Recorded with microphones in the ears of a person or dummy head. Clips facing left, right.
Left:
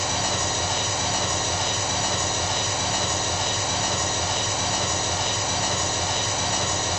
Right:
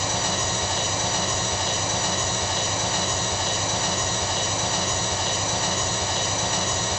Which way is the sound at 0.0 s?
40° right (ahead or behind).